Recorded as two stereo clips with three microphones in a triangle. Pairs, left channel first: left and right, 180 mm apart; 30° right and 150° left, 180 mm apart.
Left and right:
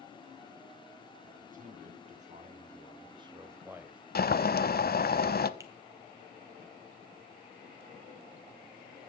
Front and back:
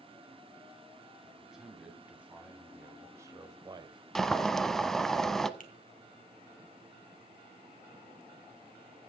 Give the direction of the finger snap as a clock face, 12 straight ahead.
1 o'clock.